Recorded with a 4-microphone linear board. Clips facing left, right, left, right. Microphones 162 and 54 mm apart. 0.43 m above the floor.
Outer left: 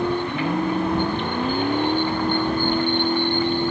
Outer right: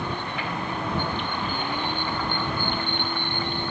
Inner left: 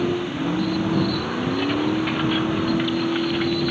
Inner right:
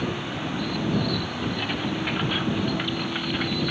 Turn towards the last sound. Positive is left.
turn(degrees=40)  # may be behind; listen again after turning